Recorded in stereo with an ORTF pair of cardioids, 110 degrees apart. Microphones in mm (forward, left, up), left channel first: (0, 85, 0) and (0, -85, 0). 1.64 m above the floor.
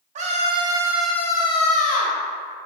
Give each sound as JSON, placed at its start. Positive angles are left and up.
{"t": 0.1, "sound": "a scream", "azimuth_deg": -45, "distance_m": 0.8}